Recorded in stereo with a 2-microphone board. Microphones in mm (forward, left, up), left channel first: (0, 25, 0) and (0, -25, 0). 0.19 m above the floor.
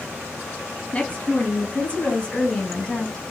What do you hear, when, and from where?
0.9 s a woman speaking: 25° left (ahead or behind), 2.5 m; by 3.2 s 20° left (ahead or behind), 1.6 m